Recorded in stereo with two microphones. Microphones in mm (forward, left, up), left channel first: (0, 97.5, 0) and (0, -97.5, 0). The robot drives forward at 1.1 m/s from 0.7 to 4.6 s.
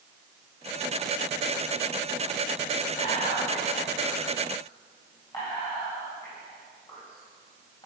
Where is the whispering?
40° left (ahead or behind), 1.6 m; by 7.9 s 25° left (ahead or behind), 2.5 m.